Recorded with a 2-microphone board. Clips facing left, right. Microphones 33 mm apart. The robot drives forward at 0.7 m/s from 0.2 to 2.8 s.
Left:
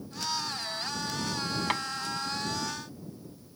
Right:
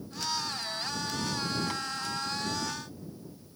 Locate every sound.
1.7 s tapping: 50° left (ahead or behind)